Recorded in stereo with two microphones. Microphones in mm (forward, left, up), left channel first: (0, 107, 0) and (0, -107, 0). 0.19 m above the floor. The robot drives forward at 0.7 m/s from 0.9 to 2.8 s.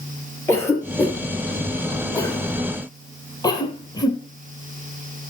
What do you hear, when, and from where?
0.5 s a cough: 10° left (ahead or behind), 3.5 m; by 4.2 s 20° left (ahead or behind), 2 m